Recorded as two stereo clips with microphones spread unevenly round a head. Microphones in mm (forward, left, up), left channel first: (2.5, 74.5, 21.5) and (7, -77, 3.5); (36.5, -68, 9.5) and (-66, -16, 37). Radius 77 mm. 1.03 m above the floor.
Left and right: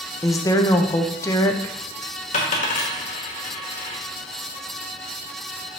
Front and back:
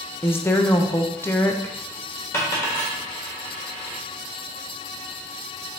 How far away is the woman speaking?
About 0.6 m.